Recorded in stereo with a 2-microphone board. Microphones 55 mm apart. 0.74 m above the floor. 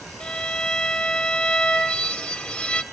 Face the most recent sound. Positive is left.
turn(degrees=20)  # may be behind; listen again after turning